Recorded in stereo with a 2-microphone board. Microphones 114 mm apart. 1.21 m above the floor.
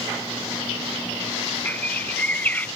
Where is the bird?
15° left (ahead or behind).